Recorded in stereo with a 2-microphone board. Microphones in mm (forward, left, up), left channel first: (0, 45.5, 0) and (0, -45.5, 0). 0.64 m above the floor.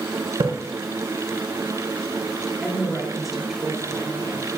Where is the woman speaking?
Centre (ahead or behind), 2.5 m.